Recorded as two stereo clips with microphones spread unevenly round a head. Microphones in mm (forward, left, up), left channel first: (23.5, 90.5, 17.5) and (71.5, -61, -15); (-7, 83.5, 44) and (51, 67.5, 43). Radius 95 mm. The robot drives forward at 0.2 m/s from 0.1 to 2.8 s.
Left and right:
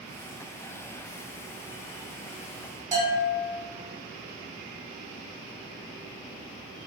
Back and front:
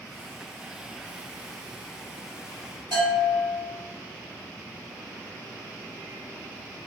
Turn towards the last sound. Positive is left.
turn(degrees=-150)